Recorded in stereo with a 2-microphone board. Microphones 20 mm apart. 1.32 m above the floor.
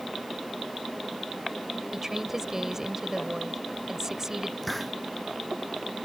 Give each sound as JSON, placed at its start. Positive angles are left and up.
{"t": 1.9, "sound": "a woman speaking", "side_deg": -25}
{"t": 4.6, "sound": "a hiss", "side_deg": 0}